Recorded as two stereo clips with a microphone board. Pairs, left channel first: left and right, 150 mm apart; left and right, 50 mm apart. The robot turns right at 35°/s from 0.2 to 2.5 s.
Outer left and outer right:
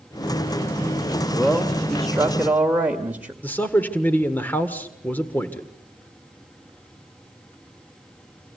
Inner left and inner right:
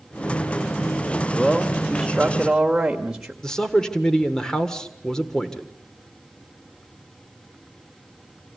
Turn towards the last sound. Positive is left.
turn(degrees=10)  # may be behind; listen again after turning